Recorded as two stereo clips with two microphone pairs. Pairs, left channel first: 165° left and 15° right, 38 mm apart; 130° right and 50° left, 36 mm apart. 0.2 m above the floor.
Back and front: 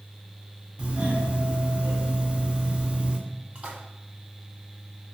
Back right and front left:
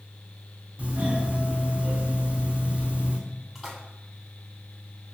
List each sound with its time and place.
0.8 s a doorbell: 15° left, 2.5 m
3.5 s a splash: 35° right, 1.6 m